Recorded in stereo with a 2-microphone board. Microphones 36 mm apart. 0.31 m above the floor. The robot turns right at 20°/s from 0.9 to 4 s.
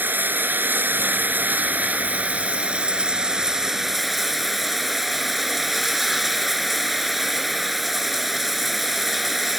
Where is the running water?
70° right; by 9.6 s 5° right.